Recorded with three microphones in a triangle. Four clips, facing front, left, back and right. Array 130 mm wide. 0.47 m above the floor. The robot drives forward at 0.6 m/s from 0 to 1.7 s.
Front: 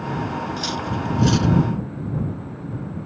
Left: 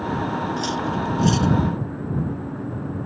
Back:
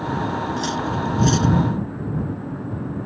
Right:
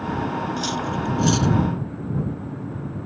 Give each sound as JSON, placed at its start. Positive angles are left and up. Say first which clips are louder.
{"t": 0.6, "sound": "cutlery clinking", "louder": "left 1 dB, back 3 dB", "azimuth_deg": -35}